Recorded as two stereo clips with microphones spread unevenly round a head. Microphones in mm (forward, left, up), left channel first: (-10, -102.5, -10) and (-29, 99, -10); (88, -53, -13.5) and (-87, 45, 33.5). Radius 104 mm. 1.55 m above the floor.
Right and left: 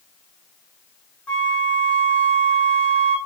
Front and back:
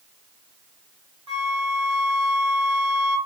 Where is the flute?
170° right, 1.2 m.